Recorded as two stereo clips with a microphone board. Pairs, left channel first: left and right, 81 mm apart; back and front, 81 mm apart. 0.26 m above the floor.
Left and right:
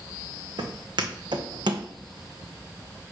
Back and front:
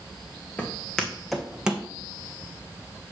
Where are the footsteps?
110° right, 1.5 m; by 1.9 s 75° right, 1.0 m.